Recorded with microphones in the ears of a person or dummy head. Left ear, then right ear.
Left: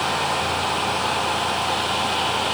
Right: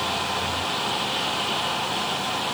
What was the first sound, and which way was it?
Only background noise.